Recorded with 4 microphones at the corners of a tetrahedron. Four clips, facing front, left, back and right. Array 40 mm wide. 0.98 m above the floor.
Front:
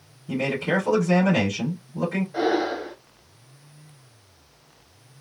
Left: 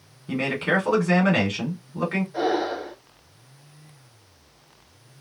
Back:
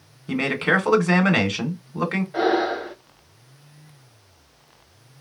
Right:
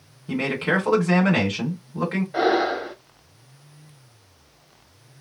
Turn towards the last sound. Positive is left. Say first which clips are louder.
# right 6 dB, back 3 dB
turn(degrees=-115)